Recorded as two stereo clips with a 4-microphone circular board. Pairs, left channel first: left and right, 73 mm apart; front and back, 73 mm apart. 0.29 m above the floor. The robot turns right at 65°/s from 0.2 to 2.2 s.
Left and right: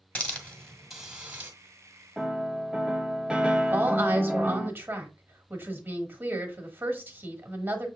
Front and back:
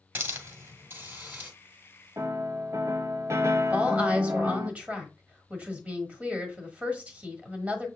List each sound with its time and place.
0.1 s a hiss: 140° left, 1.4 m; by 1.5 s 135° right, 1.4 m
2.2 s a piano: 165° right, 0.5 m; by 4.7 s 160° right, 0.5 m
3.7 s a woman speaking: 125° right, 1.2 m